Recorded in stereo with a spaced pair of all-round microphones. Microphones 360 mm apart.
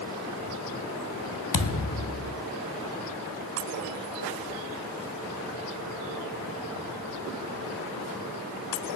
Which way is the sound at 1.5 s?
55° left (ahead or behind).